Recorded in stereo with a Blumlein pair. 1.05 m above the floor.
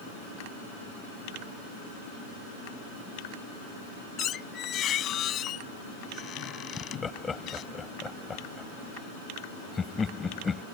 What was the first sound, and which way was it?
A squeak, 30° left.